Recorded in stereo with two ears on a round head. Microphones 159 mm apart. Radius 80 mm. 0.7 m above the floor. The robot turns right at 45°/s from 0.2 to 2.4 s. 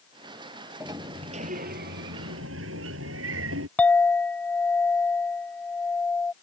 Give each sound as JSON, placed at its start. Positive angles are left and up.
{"t": 0.8, "sound": "a sliding door", "azimuth_deg": -165}
{"t": 3.8, "sound": "a clink", "side_deg": 10}